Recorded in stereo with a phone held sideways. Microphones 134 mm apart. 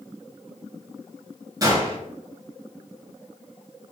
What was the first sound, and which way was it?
A gunshot, 30° right (ahead or behind).